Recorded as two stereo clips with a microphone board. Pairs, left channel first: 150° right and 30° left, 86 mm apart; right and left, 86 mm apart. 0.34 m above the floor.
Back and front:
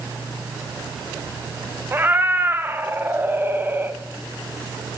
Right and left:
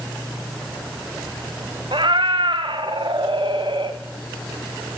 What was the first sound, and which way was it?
A cat meowing, 95° left.